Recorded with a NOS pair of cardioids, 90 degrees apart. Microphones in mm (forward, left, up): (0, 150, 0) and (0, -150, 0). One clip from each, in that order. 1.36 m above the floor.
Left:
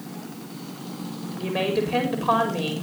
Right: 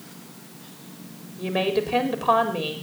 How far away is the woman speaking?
About 4.5 m.